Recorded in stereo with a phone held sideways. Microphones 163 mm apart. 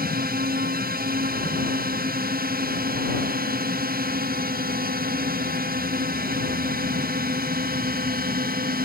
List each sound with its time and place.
0.0 s a drone: 60° right (ahead or behind)